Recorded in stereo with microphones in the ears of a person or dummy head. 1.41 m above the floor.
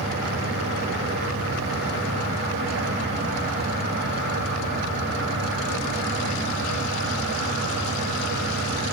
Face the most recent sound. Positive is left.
turn(degrees=-50)  # may be behind; listen again after turning